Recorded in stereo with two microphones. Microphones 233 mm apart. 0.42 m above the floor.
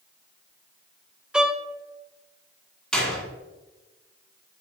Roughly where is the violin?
Centre.